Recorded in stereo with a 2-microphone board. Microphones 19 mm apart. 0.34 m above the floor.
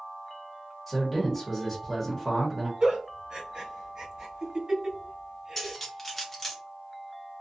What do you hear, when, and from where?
0.9 s a man speaking: 5° left (ahead or behind), 1.1 m
2.8 s a giggle: 40° right (ahead or behind), 1.6 m
5.6 s cutlery clinking: 10° left (ahead or behind), 0.8 m